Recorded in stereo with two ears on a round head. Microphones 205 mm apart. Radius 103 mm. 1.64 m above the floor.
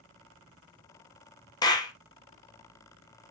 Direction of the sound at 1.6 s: 15° left (ahead or behind).